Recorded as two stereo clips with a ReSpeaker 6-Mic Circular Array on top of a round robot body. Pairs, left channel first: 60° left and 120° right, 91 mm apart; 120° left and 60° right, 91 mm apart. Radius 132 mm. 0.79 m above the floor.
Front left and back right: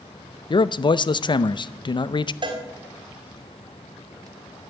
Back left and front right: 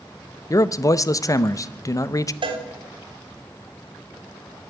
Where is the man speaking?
75° left, 0.7 m.